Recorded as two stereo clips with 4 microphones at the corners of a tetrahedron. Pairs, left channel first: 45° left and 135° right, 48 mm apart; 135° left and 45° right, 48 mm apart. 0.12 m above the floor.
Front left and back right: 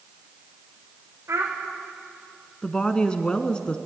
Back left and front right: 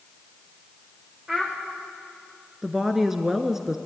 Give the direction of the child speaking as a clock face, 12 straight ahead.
4 o'clock.